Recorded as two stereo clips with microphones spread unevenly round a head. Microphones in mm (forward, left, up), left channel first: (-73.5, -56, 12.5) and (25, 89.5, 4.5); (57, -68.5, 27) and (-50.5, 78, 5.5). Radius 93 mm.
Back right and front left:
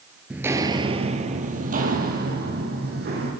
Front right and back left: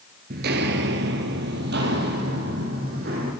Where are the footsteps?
140° left, 1.1 m; by 3.3 s 85° left, 3.5 m.